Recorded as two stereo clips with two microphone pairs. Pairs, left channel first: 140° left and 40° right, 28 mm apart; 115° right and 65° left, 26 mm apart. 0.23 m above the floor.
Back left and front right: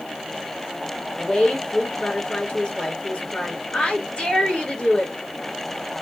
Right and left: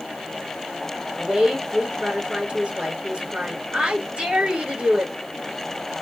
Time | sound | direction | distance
1.2 | a woman speaking | 90° left | 2.5 m